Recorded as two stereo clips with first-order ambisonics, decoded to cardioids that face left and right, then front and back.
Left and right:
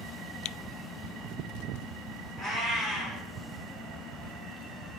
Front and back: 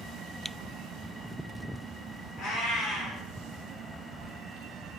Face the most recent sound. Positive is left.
turn(degrees=35)